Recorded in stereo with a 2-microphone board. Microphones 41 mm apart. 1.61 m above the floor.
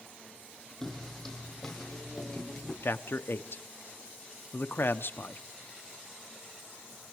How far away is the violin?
I don't hear a violin.